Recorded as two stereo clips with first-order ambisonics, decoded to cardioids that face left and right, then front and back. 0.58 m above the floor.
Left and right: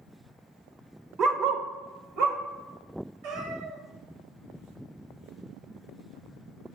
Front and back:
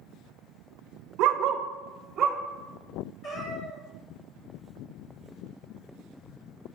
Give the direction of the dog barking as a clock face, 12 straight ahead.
5 o'clock.